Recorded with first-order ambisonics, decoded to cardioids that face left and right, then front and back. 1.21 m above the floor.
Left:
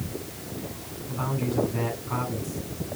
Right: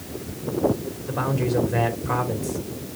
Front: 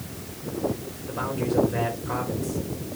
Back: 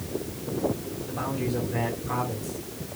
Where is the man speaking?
90° right, 3 m.